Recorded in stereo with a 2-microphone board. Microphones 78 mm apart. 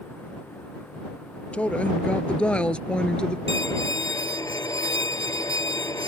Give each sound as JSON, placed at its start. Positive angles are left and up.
{"t": 1.5, "sound": "a woman speaking", "side_deg": 15}
{"t": 3.5, "sound": "a violin", "side_deg": 45}